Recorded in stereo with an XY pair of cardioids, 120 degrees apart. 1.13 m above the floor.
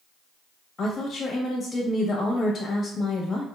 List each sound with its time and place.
0.8 s a woman speaking: 35° left, 1.4 m